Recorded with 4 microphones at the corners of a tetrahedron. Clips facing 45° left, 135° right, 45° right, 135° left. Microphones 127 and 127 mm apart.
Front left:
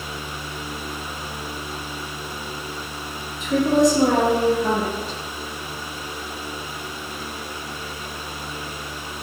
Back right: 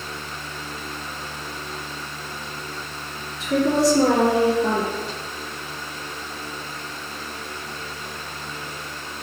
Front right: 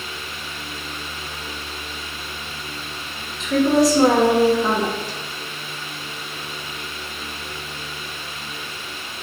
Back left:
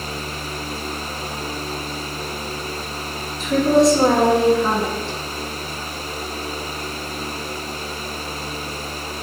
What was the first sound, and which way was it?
A woman speaking, 140° right.